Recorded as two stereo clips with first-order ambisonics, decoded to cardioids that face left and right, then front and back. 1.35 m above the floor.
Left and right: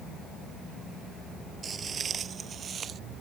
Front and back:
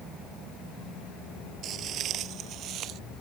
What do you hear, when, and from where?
1.6 s footsteps: 150° right; by 3.0 s 145° right